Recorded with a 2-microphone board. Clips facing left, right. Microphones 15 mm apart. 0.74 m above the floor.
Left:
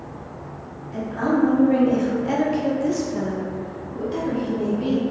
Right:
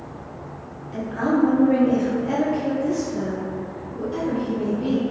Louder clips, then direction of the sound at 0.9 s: Even; 5° right (ahead or behind).